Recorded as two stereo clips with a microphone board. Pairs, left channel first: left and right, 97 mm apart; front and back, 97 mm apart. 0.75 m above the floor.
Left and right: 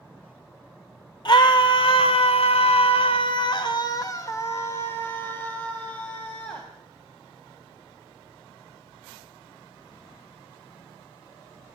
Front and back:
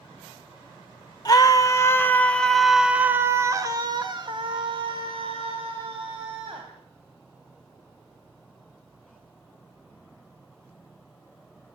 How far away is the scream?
About 2.5 m.